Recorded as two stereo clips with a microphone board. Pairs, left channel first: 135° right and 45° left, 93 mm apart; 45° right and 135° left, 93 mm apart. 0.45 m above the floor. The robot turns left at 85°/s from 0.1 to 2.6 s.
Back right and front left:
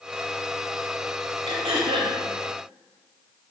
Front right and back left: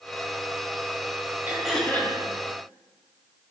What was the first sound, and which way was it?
Throat clearing, 65° left.